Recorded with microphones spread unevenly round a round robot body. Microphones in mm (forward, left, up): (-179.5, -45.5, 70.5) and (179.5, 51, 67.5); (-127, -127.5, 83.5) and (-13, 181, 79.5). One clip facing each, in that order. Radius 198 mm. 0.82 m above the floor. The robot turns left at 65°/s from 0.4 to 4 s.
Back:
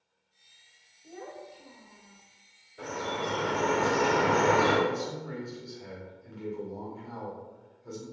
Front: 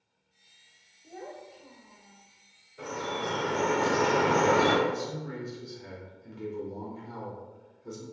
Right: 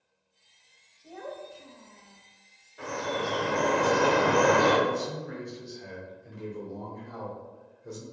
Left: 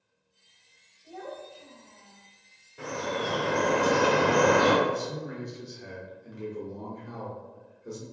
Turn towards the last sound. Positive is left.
turn(degrees=-5)